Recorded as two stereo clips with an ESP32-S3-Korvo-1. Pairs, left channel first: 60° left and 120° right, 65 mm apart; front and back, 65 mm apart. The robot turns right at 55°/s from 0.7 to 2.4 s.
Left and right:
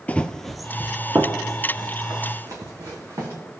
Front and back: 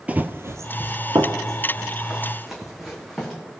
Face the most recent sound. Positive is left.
turn(degrees=-90)